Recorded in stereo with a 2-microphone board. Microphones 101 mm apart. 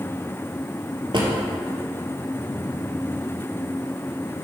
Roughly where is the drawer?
Right.